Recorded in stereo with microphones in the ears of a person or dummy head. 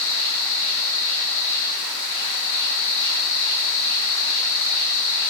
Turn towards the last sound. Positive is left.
turn(degrees=60)  # may be behind; listen again after turning